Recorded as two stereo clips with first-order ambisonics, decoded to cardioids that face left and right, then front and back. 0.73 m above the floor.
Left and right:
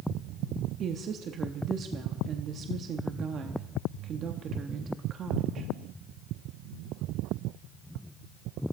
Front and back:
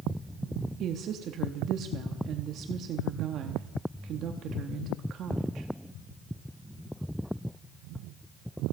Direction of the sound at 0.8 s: 140° right.